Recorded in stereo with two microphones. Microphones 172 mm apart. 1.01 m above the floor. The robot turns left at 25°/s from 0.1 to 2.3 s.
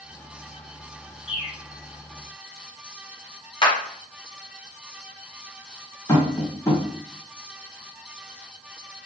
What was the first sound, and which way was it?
A bird, 45° left (ahead or behind).